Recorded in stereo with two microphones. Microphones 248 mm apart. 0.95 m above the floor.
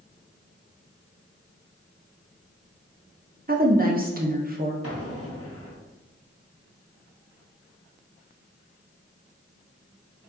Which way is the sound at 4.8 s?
70° left (ahead or behind).